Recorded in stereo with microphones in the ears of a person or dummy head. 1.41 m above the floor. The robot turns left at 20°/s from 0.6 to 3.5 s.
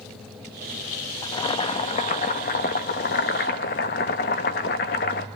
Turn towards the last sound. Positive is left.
turn(degrees=100)